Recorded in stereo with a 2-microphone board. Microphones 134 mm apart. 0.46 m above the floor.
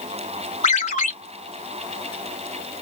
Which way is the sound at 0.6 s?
70° left (ahead or behind).